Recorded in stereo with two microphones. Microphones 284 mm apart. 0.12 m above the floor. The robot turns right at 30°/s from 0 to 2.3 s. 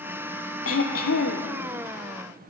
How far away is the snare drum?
No snare drum in this recording.